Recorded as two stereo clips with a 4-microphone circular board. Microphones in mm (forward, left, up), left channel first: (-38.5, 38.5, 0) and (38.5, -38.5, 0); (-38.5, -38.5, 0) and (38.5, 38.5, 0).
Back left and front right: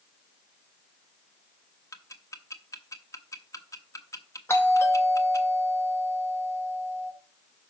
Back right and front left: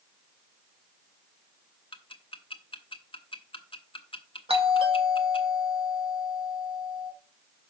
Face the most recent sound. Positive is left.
turn(degrees=70)